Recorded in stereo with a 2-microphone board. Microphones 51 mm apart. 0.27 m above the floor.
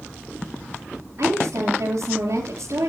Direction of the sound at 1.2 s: 75° right (ahead or behind).